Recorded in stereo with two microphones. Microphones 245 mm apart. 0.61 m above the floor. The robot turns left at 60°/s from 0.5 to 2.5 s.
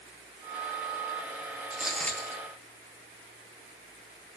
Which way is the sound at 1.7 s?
165° right.